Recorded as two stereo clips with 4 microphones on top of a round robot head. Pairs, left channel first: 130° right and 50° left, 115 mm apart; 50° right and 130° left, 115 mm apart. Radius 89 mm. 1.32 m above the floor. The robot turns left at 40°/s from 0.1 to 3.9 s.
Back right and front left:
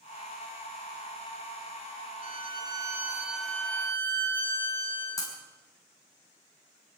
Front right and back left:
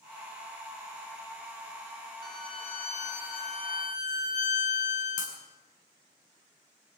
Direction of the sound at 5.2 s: 70° right.